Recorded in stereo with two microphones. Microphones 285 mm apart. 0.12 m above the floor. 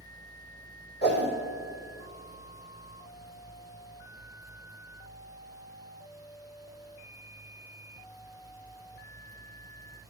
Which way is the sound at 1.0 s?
40° left (ahead or behind).